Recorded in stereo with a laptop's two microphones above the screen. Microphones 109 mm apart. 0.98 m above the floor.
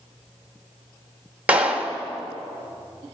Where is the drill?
I don't hear a drill.